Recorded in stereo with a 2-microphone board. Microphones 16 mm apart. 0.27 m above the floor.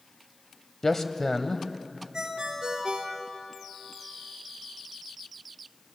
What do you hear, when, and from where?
0.8 s a man speaking: 25° left (ahead or behind), 1.2 m
2.1 s a ringtone: 50° right (ahead or behind), 3 m